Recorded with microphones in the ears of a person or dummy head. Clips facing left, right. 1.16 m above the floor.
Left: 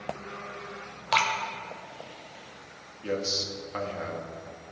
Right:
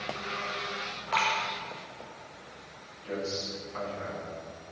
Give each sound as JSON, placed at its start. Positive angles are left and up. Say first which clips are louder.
{"t": 1.1, "sound": "dripping", "louder": "left 3 dB", "side_deg": 55, "distance_m": 1.3}
{"t": 3.0, "sound": "a man speaking", "louder": "left 3 dB", "side_deg": 70, "distance_m": 2.0}